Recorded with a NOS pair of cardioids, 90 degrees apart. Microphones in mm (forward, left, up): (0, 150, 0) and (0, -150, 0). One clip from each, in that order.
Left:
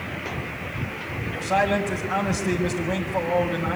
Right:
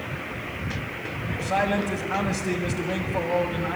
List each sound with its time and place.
1.3 s a man speaking: 10° left, 4.5 m